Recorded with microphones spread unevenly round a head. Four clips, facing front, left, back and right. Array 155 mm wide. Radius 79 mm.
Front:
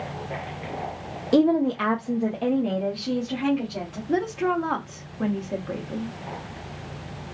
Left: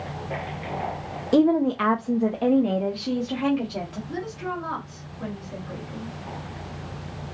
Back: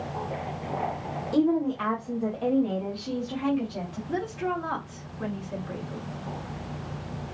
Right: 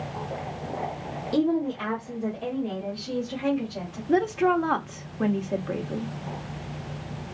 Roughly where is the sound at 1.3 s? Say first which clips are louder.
Left 5 dB, front 4 dB; ahead left.